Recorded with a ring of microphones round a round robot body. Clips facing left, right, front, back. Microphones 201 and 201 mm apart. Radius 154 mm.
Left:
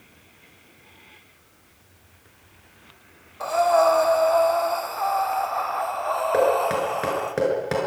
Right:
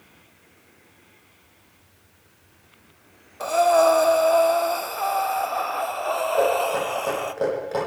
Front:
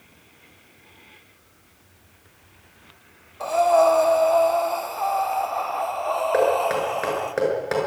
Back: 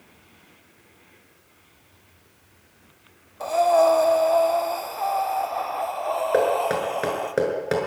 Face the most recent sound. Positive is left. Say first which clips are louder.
# left 2 dB, front 1 dB
turn(degrees=120)